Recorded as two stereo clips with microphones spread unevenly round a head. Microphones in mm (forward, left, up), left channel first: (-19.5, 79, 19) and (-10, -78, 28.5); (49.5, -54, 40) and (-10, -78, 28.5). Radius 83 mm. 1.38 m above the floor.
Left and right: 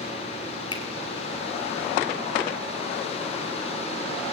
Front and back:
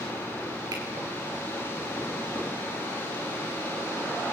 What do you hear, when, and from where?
0.7 s a finger snap: 155° left, 3.5 m